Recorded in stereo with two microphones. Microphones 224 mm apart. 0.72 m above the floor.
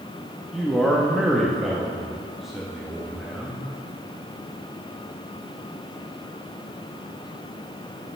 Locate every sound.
0.5 s a man speaking: centre (ahead or behind), 0.9 m